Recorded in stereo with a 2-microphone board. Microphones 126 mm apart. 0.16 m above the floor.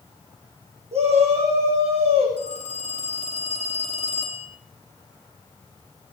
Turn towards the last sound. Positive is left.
turn(degrees=-75)  # may be behind; listen again after turning